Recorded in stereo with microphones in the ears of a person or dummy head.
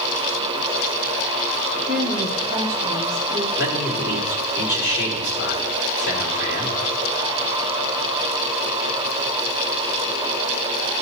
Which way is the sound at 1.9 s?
10° right (ahead or behind).